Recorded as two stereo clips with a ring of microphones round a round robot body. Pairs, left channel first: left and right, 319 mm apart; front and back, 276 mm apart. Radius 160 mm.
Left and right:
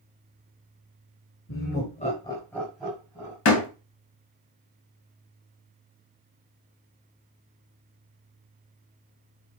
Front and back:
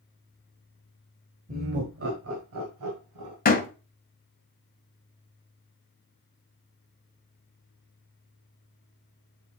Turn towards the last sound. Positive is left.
turn(degrees=55)